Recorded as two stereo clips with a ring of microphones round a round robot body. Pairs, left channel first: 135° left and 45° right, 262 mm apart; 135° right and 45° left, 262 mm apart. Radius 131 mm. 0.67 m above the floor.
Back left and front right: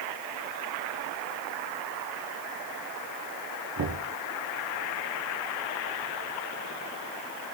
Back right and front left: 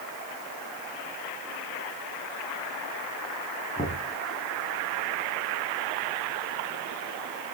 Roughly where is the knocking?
Ahead right.